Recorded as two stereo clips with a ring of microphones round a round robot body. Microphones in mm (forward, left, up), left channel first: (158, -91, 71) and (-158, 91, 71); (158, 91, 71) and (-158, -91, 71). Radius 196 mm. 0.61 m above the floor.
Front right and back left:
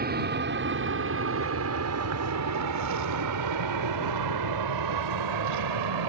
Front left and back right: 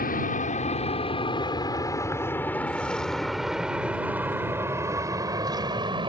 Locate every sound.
0.0 s an aircraft: 90° left; by 6.1 s 135° left